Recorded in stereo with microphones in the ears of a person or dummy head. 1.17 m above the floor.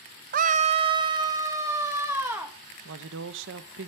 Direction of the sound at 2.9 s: 55° right (ahead or behind).